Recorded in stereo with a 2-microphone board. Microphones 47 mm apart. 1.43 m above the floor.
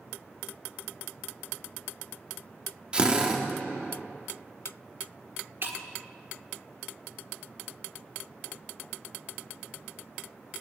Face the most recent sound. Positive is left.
turn(degrees=-50)  # may be behind; listen again after turning